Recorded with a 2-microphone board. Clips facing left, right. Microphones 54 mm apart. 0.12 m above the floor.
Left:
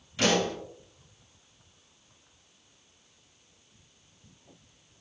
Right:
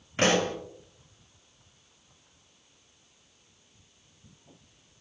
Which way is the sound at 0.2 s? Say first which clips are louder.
Right 1 dB; 45° right (ahead or behind).